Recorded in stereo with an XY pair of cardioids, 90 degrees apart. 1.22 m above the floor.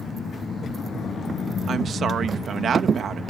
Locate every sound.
1.7 s a woman speaking: 65° right